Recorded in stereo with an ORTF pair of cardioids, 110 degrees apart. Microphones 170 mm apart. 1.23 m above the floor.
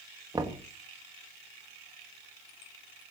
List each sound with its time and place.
0.3 s knocking: 20° right, 1.6 m